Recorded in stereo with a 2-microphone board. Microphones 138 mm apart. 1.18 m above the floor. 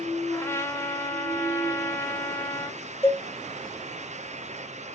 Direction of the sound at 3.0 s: 15° left (ahead or behind).